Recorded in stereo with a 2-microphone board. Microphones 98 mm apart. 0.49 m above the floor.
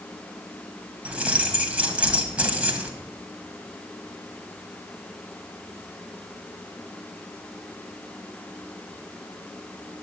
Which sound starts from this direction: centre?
Keys jangling, at 1.1 s.